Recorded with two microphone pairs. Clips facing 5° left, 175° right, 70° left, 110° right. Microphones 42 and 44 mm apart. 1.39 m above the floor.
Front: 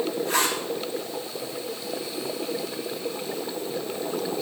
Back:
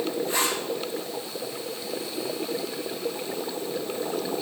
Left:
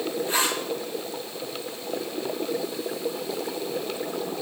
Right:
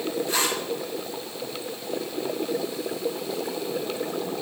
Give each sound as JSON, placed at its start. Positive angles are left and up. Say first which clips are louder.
{"t": 0.3, "sound": "a zipper", "louder": "front 4 dB, left 2 dB", "azimuth_deg": 5, "distance_m": 3.5}